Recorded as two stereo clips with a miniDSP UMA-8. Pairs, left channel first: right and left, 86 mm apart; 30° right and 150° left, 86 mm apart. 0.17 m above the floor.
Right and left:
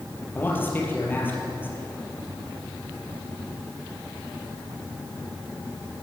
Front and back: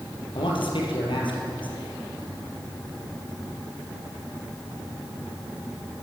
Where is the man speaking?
25° right, 4 m.